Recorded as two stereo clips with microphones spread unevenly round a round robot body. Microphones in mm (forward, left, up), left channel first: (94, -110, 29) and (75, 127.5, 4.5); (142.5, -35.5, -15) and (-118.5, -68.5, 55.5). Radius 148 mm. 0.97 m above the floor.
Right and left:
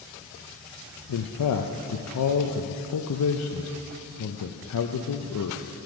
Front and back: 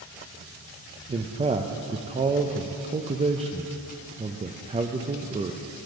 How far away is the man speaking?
About 0.5 m.